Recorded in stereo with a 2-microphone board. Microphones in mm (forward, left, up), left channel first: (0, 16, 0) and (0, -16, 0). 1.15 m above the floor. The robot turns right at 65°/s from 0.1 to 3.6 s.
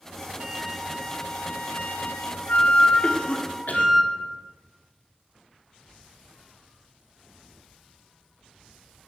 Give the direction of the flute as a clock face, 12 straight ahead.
1 o'clock.